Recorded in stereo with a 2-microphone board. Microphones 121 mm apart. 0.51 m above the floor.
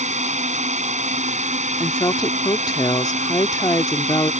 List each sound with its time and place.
0.0 s a drone: 75° right (ahead or behind)
1.8 s a woman speaking: 30° left (ahead or behind)